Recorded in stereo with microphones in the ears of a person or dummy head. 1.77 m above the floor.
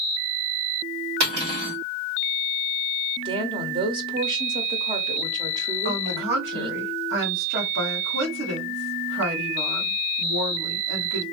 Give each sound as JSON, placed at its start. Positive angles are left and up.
{"t": 1.2, "sound": "cutlery clinking", "side_deg": -50, "distance_m": 1.6}
{"t": 3.2, "sound": "a woman speaking", "side_deg": -20, "distance_m": 0.7}
{"t": 5.8, "sound": "a woman speaking", "side_deg": -60, "distance_m": 1.5}